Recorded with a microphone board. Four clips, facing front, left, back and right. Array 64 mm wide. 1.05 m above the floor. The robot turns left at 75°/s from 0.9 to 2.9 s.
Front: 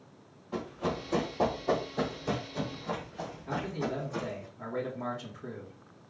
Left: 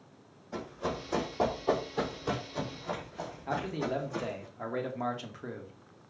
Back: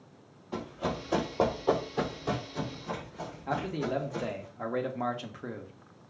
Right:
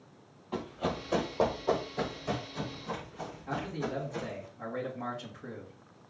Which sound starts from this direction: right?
Running footsteps, at 0.5 s.